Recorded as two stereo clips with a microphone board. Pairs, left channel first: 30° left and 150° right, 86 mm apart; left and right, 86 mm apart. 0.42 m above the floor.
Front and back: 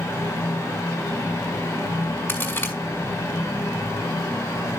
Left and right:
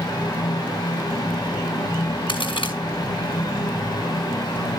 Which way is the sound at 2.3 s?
90° left.